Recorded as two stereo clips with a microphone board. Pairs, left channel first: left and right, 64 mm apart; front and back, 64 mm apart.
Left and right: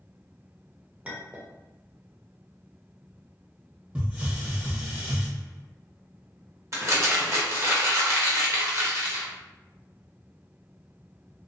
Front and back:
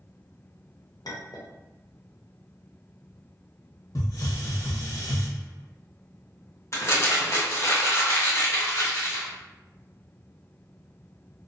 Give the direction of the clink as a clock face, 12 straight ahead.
1 o'clock.